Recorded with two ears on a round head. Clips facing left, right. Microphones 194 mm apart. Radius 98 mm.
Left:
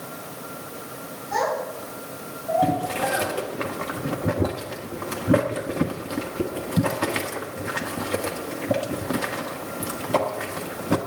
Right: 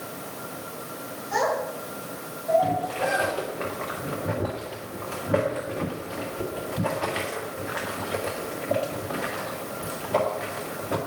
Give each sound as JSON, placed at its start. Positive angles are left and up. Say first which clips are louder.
{"t": 1.3, "sound": "a child speaking", "louder": "even", "side_deg": -10, "distance_m": 5.0}
{"t": 2.6, "sound": "boiling", "louder": "left 2 dB", "side_deg": 60, "distance_m": 1.7}